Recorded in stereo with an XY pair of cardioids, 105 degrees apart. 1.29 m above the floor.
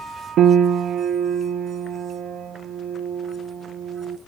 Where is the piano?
70° right, 0.5 m.